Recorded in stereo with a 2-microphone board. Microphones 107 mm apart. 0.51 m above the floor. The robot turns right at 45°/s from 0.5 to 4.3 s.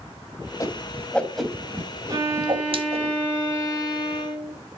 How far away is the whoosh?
About 2.0 m.